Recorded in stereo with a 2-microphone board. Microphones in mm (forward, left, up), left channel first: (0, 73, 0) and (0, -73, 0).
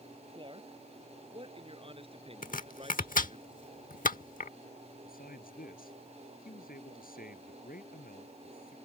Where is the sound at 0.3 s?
35° right (ahead or behind); by 3.4 s 40° right (ahead or behind).